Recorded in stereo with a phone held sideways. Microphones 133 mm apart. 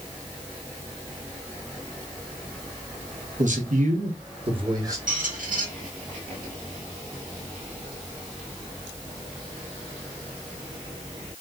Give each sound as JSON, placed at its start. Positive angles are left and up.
{"t": 3.4, "sound": "a man speaking", "side_deg": -65, "distance_m": 1.0}
{"t": 5.1, "sound": "a squeak", "side_deg": -80, "distance_m": 1.5}